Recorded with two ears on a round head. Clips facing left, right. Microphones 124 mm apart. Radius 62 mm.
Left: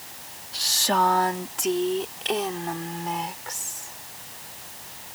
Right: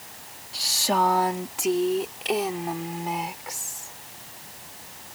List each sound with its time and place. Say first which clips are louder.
0.5 s a woman speaking: even; 5° right (ahead or behind); by 4.0 s 10° right (ahead or behind)